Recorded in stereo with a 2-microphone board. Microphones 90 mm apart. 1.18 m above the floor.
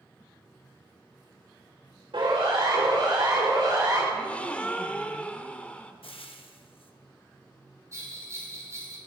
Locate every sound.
2.1 s a siren: 75° right (ahead or behind), 6 m; by 4.0 s 55° right (ahead or behind), 6 m
4.1 s a gasp: 15° left (ahead or behind), 0.9 m
6.0 s frying: 85° left, 1.2 m
7.9 s a bell: 35° right (ahead or behind), 2.5 m